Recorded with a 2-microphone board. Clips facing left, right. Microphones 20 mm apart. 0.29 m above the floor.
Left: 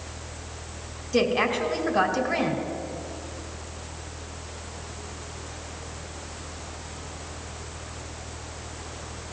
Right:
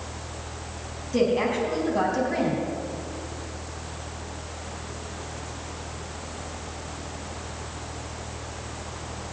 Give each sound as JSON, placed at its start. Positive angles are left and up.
{"t": 1.1, "sound": "a woman speaking", "side_deg": 25, "distance_m": 2.0}